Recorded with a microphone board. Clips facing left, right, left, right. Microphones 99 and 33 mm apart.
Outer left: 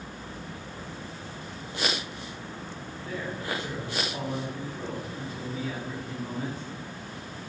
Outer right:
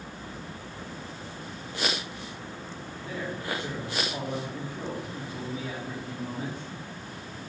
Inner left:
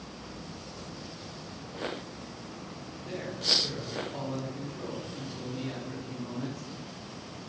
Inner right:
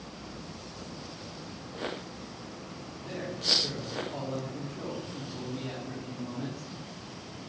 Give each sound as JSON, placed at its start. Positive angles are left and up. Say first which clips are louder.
{"t": 3.0, "sound": "a man speaking", "louder": "even, even", "side_deg": -20, "distance_m": 3.0}